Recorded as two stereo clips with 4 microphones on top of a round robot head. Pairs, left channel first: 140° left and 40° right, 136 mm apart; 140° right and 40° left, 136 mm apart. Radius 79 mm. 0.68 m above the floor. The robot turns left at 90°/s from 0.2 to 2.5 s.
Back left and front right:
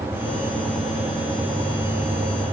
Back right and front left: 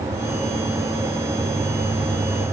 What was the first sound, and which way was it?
Only background noise.